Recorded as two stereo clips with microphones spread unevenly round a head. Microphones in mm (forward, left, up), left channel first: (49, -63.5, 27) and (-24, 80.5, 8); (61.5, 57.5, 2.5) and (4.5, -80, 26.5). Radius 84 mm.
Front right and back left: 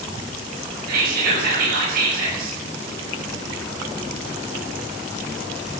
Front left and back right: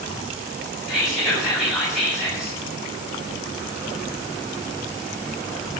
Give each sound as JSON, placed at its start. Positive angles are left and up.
{"t": 0.9, "sound": "whispering", "azimuth_deg": 160, "distance_m": 6.5}